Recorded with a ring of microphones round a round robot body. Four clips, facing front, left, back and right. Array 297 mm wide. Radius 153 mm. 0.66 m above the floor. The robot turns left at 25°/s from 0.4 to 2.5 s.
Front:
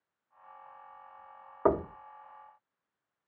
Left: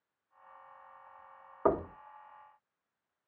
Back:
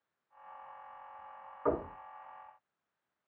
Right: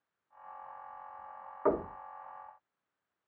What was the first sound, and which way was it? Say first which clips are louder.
Knocking: left 1 dB, front 5 dB; 25° left.